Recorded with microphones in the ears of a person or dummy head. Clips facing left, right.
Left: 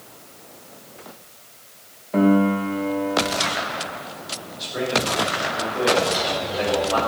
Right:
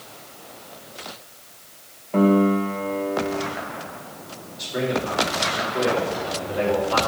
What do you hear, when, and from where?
2.1 s a piano: 15° left (ahead or behind), 1.4 m
4.6 s a man speaking: 20° right (ahead or behind), 5 m